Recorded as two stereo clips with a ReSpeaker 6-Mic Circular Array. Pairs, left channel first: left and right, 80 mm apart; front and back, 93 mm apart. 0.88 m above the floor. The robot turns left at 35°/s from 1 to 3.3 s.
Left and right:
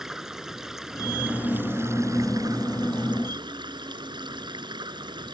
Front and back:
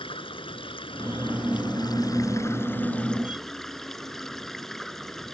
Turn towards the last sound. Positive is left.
turn(degrees=-85)